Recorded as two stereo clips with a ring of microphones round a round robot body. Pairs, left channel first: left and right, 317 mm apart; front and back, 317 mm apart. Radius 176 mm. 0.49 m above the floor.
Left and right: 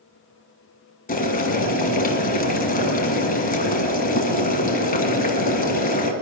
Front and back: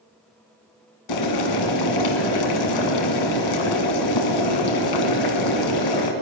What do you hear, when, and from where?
1.1 s boiling: 25° left, 1.9 m